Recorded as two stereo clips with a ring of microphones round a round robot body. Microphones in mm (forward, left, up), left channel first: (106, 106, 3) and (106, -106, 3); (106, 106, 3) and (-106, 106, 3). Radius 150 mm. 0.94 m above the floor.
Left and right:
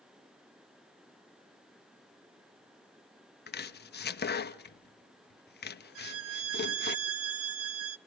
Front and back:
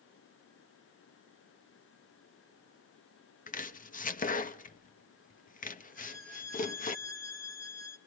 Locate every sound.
3.5 s chopping: 50° left, 1.1 m
6.0 s a violin: 80° right, 1.1 m